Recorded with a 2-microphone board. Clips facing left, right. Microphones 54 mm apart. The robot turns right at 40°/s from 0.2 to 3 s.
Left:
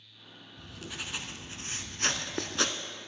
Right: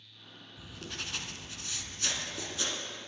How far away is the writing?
About 0.7 m.